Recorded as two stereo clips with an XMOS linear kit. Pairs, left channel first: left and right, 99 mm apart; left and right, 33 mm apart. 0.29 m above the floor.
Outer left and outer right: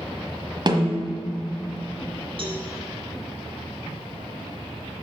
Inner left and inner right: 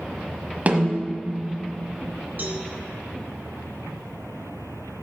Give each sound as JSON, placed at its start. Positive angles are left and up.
{"t": 0.7, "sound": "a snare drum", "side_deg": -50, "distance_m": 1.2}
{"t": 2.4, "sound": "a cowbell", "side_deg": -60, "distance_m": 1.9}